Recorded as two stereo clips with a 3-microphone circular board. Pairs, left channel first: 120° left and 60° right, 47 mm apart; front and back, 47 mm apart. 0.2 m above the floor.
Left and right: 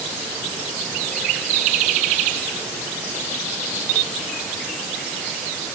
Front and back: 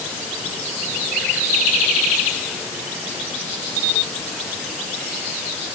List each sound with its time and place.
Only background noise.